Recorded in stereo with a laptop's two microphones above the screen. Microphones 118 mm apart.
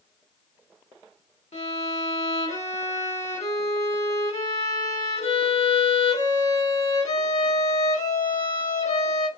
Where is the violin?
70° left (ahead or behind), 1.2 m.